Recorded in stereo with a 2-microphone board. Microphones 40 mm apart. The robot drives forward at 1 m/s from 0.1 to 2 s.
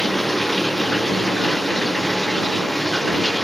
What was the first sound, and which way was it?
Running water, 5° left (ahead or behind).